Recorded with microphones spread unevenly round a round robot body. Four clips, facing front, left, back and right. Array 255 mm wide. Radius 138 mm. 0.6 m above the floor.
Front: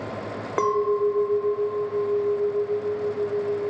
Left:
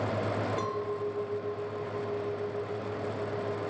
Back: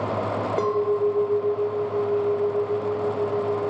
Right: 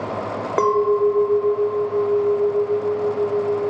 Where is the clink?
100° right.